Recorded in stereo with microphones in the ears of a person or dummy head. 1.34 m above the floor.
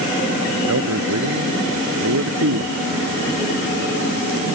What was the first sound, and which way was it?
A man speaking, 90° right.